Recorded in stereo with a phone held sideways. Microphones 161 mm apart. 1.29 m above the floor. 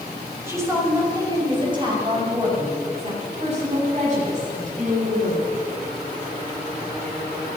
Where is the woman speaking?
15° right (ahead or behind), 6.5 m; by 5.5 s 55° right (ahead or behind), 11.5 m.